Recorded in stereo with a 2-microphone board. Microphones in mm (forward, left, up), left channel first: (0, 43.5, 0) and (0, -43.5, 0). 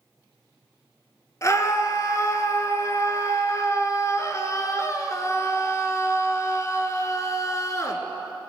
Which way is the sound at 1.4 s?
35° left (ahead or behind).